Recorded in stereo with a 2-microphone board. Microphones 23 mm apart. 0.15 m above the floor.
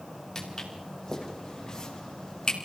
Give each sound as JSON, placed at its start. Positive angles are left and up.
{"t": 0.3, "sound": "footsteps", "side_deg": 15, "distance_m": 5.5}